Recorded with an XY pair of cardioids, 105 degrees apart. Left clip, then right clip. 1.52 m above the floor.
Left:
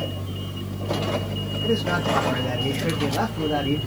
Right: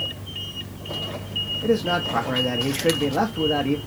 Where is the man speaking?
20° right, 0.6 m.